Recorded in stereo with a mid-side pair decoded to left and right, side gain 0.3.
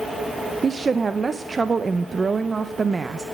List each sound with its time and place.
0.6 s a woman speaking: 45° right, 0.6 m